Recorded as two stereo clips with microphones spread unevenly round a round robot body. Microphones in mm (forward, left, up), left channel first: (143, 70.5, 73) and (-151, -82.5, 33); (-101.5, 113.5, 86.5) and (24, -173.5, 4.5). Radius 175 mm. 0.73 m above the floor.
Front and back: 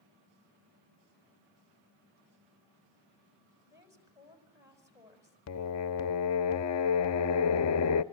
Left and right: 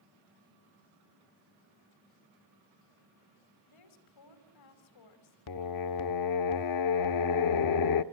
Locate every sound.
3.7 s a woman speaking: 125° left, 5 m
5.5 s singing: 75° left, 0.6 m